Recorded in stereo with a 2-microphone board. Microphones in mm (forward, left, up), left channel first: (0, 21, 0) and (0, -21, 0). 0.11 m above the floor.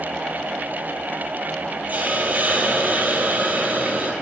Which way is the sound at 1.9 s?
40° right (ahead or behind).